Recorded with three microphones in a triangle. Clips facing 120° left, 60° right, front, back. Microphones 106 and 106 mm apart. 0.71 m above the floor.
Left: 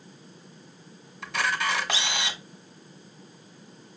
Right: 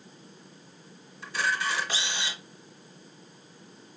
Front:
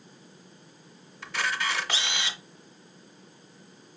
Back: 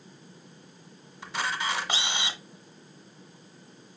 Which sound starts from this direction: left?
A camera shutter, at 1.2 s.